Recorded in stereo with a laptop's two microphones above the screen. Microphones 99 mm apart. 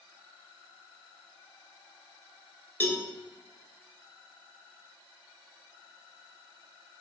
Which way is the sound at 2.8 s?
20° left (ahead or behind).